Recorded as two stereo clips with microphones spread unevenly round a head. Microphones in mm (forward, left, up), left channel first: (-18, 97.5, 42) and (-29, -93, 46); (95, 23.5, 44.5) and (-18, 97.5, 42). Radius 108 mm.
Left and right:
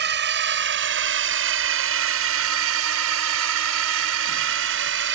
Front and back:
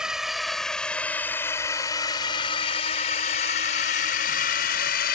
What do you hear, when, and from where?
0.0 s a drone: 125° right; by 5.2 s 60° right